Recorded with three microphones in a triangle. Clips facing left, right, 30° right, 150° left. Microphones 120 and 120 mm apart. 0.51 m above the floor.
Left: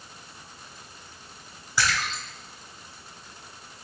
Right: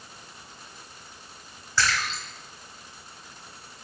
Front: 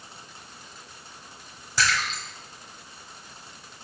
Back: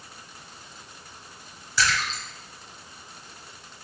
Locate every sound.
1.8 s a splash: 10° left, 0.9 m